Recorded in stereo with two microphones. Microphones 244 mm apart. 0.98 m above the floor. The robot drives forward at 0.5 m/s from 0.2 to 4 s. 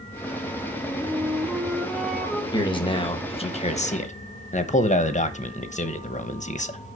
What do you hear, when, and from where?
0.8 s a flute: centre (ahead or behind), 1.0 m
2.5 s a man speaking: 20° left (ahead or behind), 1.5 m; by 6.8 s 30° left (ahead or behind), 1.0 m